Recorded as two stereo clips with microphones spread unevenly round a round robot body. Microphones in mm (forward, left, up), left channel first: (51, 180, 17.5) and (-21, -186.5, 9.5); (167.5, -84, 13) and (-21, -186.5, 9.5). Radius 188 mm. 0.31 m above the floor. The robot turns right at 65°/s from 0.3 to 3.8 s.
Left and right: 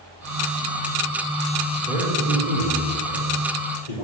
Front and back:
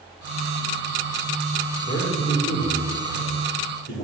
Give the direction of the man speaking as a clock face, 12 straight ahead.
1 o'clock.